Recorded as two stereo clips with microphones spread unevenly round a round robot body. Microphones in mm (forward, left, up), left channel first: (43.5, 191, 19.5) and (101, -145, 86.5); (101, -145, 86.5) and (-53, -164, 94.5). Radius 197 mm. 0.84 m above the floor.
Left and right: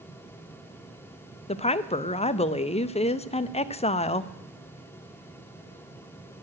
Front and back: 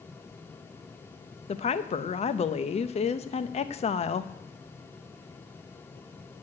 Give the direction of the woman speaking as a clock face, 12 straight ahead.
11 o'clock.